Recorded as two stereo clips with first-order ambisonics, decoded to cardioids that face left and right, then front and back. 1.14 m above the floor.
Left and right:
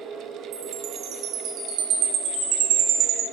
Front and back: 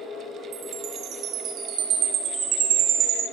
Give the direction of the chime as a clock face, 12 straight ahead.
4 o'clock.